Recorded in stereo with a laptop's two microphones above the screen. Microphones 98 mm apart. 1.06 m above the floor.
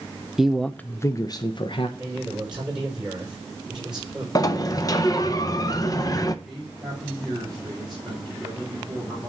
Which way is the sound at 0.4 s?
5° right (ahead or behind).